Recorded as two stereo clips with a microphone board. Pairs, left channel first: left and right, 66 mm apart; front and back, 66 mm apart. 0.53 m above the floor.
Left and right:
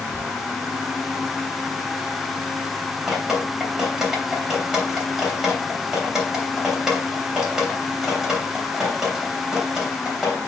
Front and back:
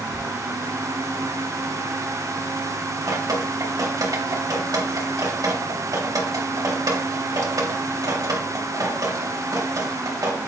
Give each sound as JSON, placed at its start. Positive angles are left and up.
{"t": 0.1, "sound": "whispering", "azimuth_deg": 20, "distance_m": 4.0}
{"t": 3.1, "sound": "dripping", "azimuth_deg": -170, "distance_m": 3.0}